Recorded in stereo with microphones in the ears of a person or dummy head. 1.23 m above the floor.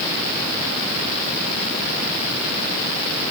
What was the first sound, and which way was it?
Only background noise.